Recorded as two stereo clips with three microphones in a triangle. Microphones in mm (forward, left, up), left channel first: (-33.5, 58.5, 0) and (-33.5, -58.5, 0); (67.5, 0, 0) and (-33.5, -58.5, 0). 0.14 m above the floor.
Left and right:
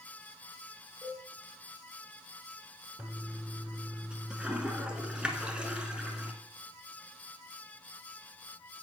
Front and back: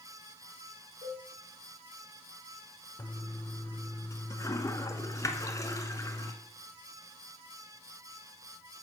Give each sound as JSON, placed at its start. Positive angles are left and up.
{"t": 1.0, "sound": "a cowbell", "azimuth_deg": -150, "distance_m": 2.5}
{"t": 3.0, "sound": "a toilet flushing", "azimuth_deg": -15, "distance_m": 0.8}